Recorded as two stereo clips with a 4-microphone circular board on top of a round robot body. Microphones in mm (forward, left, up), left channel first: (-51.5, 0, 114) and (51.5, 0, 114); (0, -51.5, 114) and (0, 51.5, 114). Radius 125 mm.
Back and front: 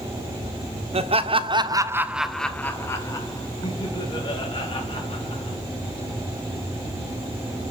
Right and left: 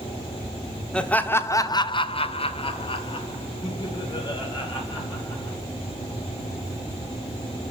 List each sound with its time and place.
0.9 s laughter: 10° right, 1.7 m; by 5.6 s 140° right, 5 m